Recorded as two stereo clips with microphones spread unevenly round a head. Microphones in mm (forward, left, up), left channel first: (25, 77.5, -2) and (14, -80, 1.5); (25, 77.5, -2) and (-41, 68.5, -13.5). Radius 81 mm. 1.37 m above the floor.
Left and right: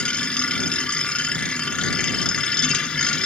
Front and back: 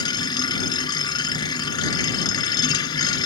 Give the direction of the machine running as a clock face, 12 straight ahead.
12 o'clock.